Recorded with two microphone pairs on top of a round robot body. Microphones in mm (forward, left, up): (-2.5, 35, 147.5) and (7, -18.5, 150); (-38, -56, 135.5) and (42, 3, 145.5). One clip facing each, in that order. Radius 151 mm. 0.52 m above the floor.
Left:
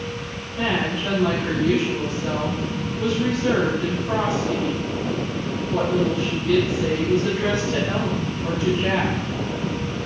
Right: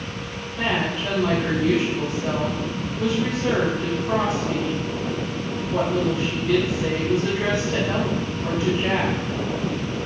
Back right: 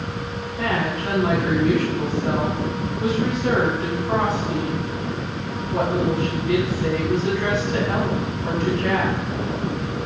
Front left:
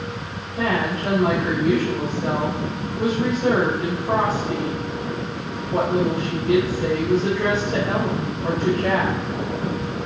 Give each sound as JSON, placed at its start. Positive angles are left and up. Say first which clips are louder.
{"t": 0.6, "sound": "a woman speaking", "louder": "left 1 dB, front left 2 dB", "azimuth_deg": 10, "distance_m": 4.5}